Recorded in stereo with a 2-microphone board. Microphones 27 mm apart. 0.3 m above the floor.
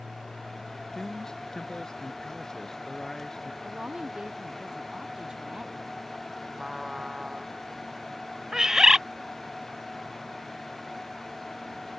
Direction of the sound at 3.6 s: 35° right (ahead or behind).